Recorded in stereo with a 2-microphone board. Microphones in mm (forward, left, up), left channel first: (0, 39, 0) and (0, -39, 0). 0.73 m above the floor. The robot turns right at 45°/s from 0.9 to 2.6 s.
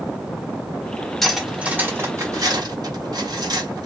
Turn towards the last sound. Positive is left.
turn(degrees=-60)  # may be behind; listen again after turning